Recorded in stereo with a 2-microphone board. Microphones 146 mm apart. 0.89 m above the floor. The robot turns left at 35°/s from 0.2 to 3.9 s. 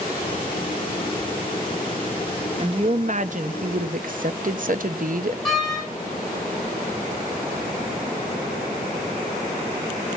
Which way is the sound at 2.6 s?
45° right.